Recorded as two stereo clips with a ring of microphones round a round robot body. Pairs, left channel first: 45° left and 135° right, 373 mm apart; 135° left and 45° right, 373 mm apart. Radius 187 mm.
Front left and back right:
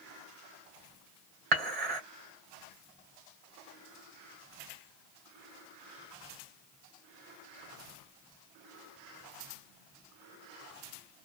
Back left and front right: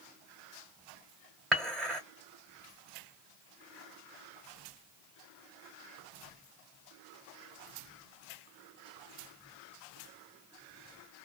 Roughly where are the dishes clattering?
Behind right.